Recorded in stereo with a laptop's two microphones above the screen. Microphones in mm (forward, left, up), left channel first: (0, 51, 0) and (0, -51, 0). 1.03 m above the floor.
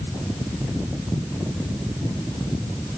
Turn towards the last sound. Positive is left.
No sound to turn to.